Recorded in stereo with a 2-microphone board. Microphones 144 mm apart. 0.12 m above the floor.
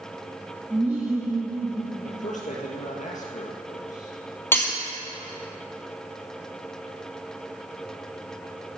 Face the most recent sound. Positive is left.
turn(degrees=15)  # may be behind; listen again after turning